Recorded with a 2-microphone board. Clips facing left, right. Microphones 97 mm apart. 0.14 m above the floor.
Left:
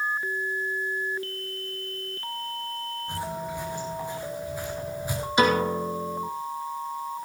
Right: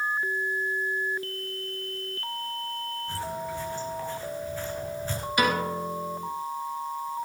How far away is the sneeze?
No sneeze in this recording.